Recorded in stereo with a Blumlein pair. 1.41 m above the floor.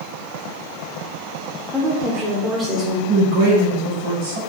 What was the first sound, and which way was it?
A woman speaking, 5° right.